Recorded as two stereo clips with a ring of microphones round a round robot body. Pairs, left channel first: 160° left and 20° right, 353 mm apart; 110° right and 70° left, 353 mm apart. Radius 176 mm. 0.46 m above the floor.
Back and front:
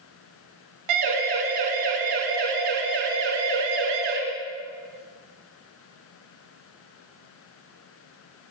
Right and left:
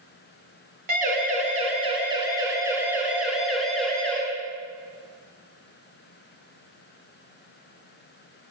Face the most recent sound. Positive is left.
turn(degrees=-25)